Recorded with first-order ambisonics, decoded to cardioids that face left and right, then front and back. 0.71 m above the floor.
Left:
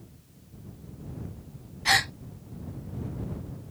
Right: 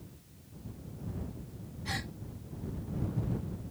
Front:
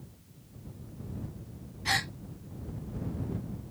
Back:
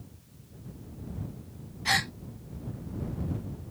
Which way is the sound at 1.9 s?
95° left.